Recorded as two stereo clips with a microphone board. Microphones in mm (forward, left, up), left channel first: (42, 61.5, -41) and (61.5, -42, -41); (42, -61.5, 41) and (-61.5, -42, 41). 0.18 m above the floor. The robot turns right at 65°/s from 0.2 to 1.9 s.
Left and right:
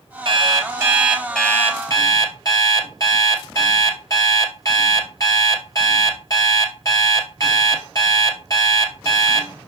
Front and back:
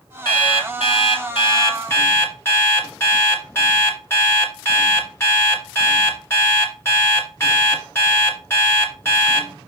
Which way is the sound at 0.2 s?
55° right.